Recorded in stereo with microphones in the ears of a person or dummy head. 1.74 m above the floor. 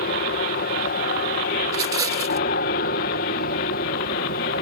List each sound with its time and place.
0.0 s an aircraft: 50° left (ahead or behind)
1.7 s a rattle: 25° right (ahead or behind)